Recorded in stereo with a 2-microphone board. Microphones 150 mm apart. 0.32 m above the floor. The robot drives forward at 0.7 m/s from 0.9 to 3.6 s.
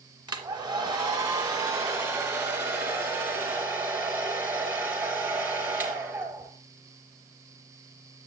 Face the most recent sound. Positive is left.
turn(degrees=-15)  # may be behind; listen again after turning